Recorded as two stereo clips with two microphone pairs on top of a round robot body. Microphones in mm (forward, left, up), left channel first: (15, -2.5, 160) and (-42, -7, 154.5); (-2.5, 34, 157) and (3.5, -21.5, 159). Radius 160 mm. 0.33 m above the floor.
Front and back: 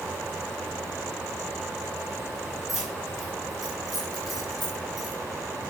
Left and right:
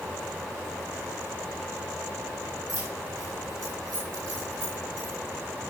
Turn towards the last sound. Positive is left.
turn(degrees=-85)